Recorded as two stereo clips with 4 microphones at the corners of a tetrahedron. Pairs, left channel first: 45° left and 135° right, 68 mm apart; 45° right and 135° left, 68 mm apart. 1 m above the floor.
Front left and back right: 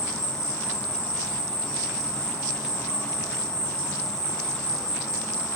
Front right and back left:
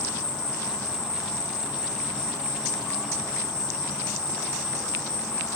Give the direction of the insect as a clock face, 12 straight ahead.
11 o'clock.